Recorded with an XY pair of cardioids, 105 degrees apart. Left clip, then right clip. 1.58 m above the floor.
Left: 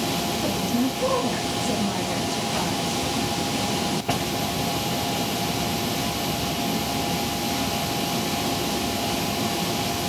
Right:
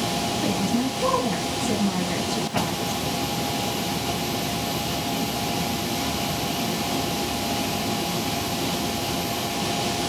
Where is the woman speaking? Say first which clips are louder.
Even; 40° right, 1.5 m.